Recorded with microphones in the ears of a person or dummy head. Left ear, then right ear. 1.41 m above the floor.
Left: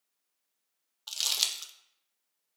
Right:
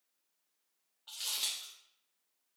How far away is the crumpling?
About 0.6 m.